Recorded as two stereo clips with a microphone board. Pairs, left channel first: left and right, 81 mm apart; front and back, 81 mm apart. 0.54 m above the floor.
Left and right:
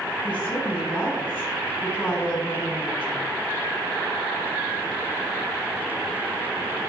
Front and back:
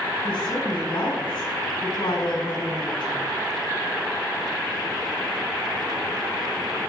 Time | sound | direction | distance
0.2 | a woman speaking | 15° left | 4 m